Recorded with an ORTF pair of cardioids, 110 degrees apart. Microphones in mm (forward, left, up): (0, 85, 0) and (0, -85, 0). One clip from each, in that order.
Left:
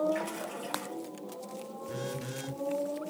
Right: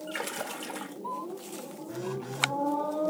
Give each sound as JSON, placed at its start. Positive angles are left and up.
{"t": 0.1, "sound": "a splash", "azimuth_deg": -70, "distance_m": 1.1}
{"t": 1.9, "sound": "a phone buzzing", "azimuth_deg": 40, "distance_m": 0.9}